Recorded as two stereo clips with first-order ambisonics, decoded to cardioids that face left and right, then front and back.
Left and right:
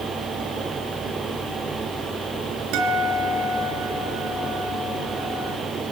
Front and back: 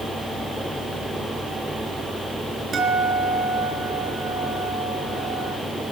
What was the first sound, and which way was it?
A guitar, 110° right.